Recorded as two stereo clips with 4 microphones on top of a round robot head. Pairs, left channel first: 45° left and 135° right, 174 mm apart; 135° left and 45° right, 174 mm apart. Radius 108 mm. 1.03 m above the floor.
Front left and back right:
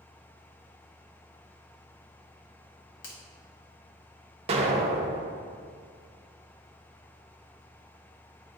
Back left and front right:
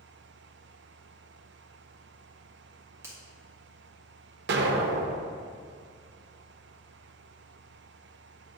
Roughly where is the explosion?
Right.